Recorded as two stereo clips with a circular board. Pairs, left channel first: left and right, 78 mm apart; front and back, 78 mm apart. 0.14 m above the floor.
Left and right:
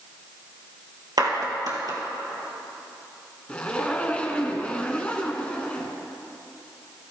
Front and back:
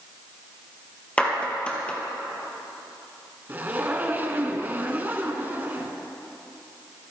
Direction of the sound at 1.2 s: 70° right.